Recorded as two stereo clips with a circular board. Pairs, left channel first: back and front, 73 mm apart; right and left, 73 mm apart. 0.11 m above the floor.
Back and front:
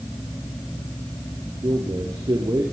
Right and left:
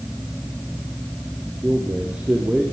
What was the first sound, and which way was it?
A man speaking, 15° left.